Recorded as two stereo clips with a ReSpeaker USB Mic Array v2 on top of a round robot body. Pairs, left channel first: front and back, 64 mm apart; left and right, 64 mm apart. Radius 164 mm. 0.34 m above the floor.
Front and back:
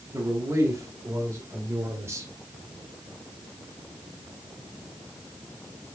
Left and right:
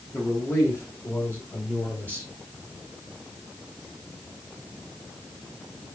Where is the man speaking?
140° left, 3 m; by 2.3 s 150° left, 2 m.